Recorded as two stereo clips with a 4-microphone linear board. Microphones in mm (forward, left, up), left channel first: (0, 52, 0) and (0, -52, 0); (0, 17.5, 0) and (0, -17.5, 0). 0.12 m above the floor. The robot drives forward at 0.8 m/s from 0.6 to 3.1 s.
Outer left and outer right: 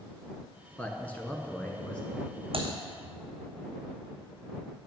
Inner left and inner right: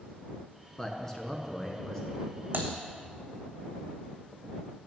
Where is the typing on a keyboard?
60° right (ahead or behind), 1.3 m; by 2.7 s 55° right (ahead or behind), 1.4 m.